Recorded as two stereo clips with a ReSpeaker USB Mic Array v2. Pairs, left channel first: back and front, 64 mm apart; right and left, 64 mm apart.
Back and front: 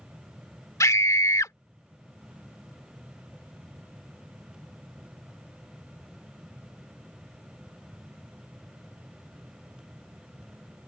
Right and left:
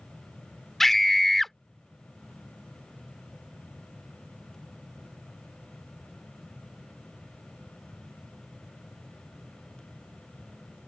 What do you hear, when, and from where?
0.8 s a scream: 175° right